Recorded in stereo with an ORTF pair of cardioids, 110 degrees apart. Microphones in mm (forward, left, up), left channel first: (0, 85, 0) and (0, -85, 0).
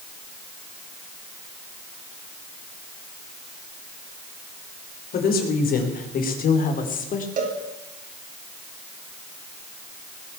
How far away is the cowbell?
About 4 m.